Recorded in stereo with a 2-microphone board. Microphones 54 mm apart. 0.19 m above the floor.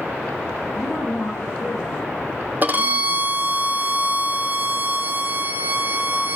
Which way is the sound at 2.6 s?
35° right (ahead or behind).